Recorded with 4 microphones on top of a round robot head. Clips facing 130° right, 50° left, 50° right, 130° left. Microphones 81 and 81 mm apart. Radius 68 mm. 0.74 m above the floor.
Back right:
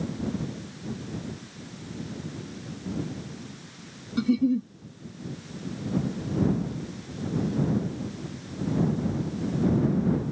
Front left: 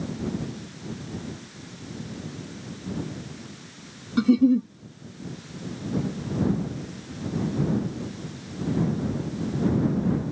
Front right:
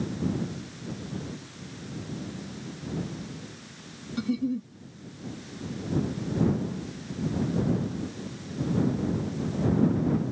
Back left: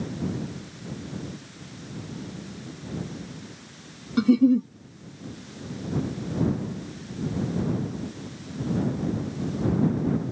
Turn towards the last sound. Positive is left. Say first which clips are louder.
# front left 5 dB, back left 10 dB
turn(degrees=100)